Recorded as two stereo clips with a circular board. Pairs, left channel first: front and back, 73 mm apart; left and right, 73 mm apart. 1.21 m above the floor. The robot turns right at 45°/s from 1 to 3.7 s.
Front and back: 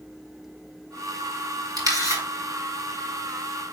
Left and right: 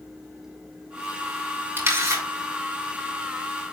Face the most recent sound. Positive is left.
turn(degrees=-60)